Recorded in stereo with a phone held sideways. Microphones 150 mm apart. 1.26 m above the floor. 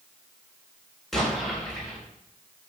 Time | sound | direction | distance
1.1 | an explosion | centre (ahead or behind) | 3 m